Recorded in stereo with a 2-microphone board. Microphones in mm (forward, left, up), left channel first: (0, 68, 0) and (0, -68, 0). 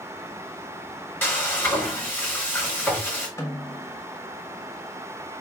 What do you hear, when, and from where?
1.2 s frying: 15° left (ahead or behind), 1.9 m
3.4 s a snare drum: 20° left (ahead or behind), 1.1 m